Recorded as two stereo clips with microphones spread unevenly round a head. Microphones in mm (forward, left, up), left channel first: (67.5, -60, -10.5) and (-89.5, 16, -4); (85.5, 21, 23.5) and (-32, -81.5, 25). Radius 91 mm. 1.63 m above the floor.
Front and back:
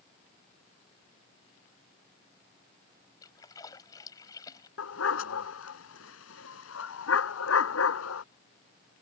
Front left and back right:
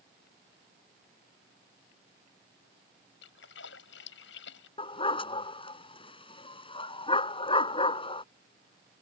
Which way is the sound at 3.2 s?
45° left.